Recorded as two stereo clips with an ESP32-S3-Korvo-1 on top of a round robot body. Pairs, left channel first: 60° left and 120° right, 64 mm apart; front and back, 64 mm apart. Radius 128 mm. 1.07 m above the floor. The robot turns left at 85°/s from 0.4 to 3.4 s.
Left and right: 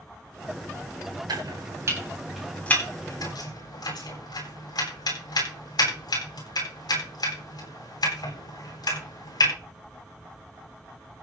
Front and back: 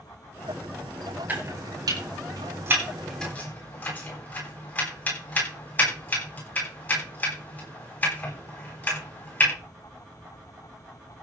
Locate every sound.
1.3 s chopping: 120° right, 10 m; by 9.5 s 60° left, 10 m